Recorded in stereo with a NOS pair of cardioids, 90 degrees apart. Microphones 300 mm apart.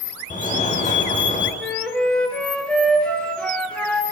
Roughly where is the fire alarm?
Ahead left.